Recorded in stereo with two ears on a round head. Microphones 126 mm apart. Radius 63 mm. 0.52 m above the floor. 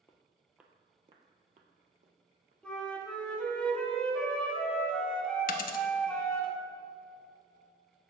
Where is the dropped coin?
65° left (ahead or behind), 0.7 m.